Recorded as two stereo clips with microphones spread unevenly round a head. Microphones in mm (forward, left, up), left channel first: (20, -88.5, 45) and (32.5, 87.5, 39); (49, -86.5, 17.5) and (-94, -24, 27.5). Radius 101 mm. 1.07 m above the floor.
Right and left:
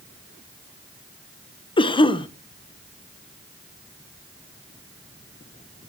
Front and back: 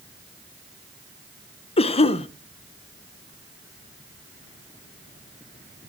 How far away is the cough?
About 1.0 m.